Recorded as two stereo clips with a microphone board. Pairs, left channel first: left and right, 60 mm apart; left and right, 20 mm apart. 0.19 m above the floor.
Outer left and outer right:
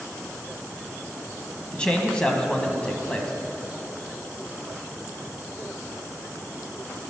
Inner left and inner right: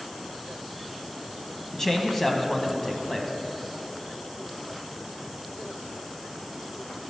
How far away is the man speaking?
About 1.0 m.